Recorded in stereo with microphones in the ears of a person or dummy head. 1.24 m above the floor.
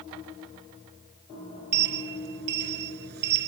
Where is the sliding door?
60° right (ahead or behind).